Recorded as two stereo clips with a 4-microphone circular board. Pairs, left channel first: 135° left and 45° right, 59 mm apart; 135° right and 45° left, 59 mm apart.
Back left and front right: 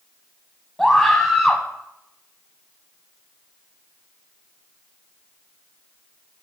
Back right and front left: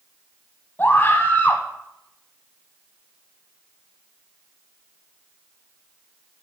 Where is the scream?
140° right, 1.1 m.